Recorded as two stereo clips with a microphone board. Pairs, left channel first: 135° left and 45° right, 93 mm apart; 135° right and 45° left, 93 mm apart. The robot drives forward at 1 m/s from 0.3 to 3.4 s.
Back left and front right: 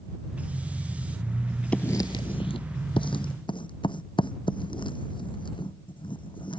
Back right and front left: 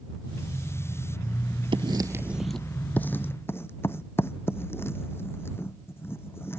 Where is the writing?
60° left; by 6.6 s 160° left.